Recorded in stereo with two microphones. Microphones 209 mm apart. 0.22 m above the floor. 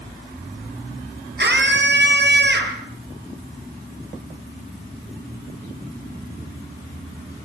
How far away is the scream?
About 4.5 m.